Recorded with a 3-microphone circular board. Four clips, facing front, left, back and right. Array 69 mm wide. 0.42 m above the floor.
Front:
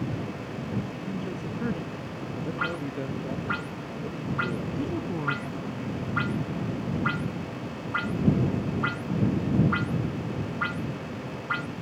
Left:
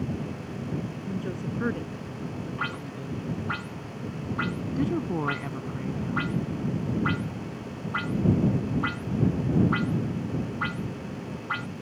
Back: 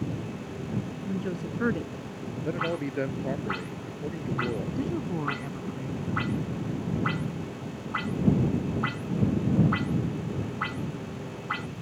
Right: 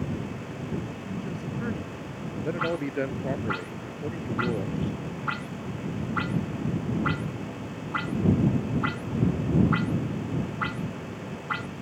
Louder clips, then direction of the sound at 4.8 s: Left 5 dB, even; 105° left.